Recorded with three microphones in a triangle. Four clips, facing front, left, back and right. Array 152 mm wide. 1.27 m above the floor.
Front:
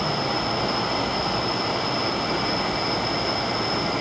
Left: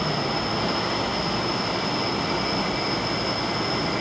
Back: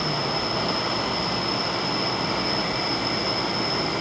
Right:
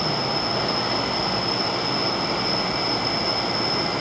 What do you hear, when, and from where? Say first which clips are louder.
0.0 s an insect: right 1 dB, front 2 dB; 165° right